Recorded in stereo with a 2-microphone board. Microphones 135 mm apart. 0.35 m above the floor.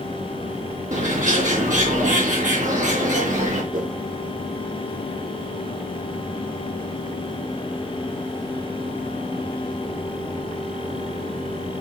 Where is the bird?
65° right (ahead or behind), 4.5 m.